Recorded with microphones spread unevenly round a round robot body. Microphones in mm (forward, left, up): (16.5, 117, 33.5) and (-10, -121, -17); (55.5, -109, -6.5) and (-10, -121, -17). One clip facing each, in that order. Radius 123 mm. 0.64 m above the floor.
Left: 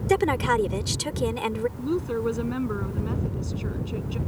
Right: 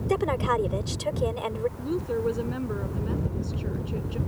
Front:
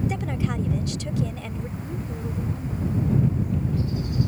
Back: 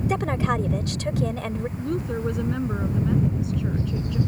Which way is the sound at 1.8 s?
150° left.